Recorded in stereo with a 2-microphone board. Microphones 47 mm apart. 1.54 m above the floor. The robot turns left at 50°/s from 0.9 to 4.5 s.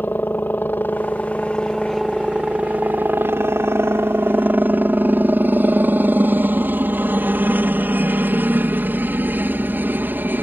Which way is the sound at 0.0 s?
50° left.